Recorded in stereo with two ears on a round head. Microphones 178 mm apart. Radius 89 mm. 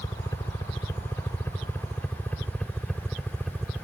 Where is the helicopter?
20° left (ahead or behind); by 3.8 s centre (ahead or behind).